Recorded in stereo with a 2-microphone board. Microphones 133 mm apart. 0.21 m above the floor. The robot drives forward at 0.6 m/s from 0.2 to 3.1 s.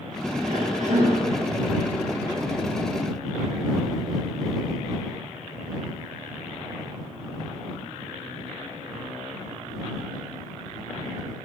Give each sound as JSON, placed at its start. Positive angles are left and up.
{"t": 0.5, "sound": "a cough", "side_deg": -65, "distance_m": 3.5}